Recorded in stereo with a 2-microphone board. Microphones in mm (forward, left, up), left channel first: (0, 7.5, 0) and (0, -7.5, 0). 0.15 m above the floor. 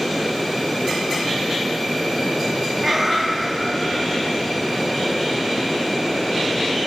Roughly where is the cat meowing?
Right.